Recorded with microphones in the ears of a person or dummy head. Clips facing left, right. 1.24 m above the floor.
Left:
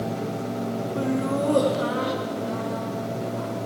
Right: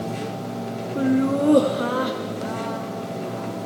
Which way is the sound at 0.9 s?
15° right (ahead or behind).